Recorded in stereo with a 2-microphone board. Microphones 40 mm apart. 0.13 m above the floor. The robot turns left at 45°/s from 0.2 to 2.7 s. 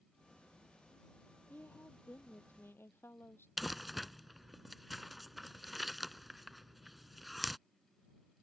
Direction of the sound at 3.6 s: Centre (ahead or behind).